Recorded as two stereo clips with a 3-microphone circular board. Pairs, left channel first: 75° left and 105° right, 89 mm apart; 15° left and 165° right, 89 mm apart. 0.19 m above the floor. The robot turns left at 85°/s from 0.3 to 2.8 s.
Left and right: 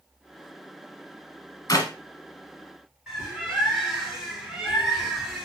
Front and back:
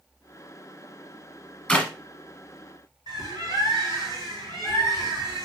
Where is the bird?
175° left, 3 m.